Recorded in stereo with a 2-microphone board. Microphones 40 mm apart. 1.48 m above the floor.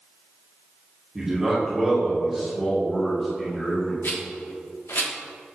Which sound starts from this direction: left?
A rattle, at 4.0 s.